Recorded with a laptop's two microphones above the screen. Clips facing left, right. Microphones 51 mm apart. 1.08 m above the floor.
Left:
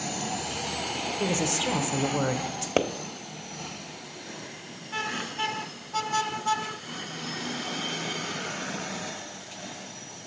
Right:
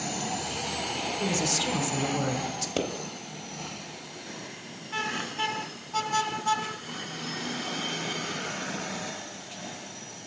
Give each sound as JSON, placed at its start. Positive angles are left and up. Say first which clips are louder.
{"t": 1.2, "sound": "a woman speaking", "louder": "left 2 dB", "side_deg": 25, "distance_m": 0.8}
{"t": 2.8, "sound": "a pop", "louder": "left 5 dB", "side_deg": 40, "distance_m": 0.8}